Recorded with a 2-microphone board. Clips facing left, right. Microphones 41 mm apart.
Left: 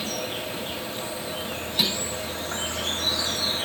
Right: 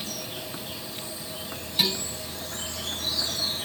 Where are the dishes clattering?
5° left (ahead or behind), 6 m.